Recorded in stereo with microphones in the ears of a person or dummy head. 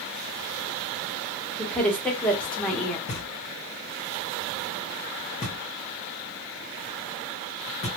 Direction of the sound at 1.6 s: 5° left (ahead or behind).